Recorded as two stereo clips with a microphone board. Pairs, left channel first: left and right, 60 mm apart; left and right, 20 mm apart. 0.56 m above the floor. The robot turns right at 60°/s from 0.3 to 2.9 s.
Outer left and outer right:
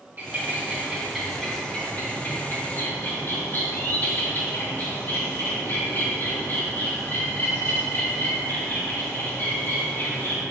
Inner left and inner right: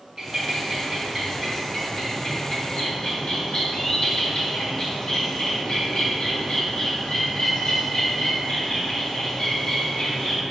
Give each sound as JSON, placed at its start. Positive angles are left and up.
{"t": 0.2, "sound": "a bird", "azimuth_deg": -60, "distance_m": 0.8}